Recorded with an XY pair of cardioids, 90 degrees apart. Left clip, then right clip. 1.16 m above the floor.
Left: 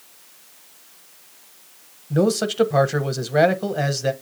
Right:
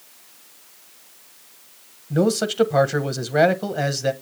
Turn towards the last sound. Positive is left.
turn(degrees=0)